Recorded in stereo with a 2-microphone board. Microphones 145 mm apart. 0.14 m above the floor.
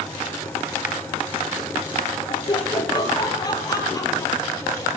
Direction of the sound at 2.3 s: 35° left (ahead or behind).